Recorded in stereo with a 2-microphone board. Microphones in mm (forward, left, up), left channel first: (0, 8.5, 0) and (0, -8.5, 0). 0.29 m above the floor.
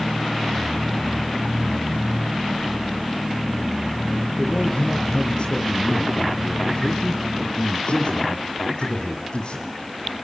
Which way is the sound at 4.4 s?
50° left (ahead or behind).